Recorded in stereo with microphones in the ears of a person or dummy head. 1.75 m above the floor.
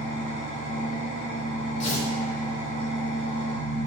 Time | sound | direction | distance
0.0 | an engine running | 40° left (ahead or behind) | 1.6 m
1.8 | tearing paper | 40° left (ahead or behind) | 0.5 m